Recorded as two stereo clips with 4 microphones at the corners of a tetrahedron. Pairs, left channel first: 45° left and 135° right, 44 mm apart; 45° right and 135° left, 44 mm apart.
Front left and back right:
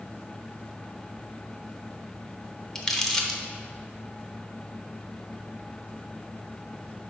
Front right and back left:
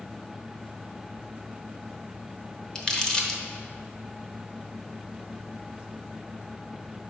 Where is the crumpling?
20° right, 0.9 m.